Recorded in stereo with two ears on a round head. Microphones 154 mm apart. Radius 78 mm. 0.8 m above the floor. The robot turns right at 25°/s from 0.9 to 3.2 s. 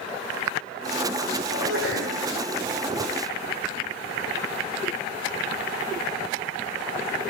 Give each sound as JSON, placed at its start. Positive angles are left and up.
{"t": 1.5, "sound": "a sneeze", "side_deg": -85, "distance_m": 7.5}